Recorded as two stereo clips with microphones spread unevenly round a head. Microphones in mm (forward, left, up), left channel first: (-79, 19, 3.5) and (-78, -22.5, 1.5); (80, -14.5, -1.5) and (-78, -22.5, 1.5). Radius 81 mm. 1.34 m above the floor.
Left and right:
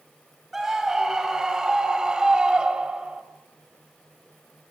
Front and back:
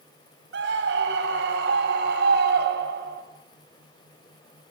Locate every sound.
0.5 s a scream: 170° right, 7 m; by 3.2 s 155° right, 5.5 m